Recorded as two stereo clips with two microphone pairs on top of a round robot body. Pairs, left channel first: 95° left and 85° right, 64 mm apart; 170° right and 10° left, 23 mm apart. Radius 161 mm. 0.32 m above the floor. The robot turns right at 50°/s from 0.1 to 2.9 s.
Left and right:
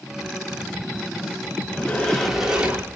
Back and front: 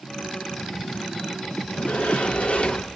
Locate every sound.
1.7 s a sliding door: 160° left, 1.2 m; by 3.0 s 140° right, 1.2 m